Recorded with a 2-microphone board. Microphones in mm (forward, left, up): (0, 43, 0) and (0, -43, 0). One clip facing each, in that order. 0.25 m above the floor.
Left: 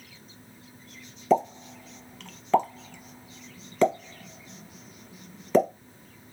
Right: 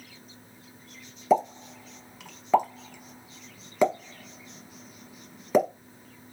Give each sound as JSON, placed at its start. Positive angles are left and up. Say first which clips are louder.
{"t": 1.3, "sound": "a pop", "louder": "even", "side_deg": -10, "distance_m": 0.8}